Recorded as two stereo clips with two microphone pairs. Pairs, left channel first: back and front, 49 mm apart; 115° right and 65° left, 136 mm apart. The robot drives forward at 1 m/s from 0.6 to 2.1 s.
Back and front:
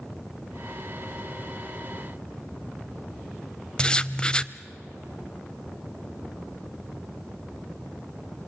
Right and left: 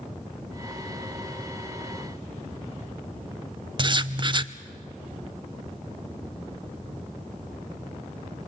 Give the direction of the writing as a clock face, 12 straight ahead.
8 o'clock.